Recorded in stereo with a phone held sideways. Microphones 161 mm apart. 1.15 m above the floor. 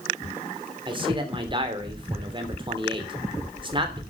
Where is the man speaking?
30° right (ahead or behind), 3.5 m.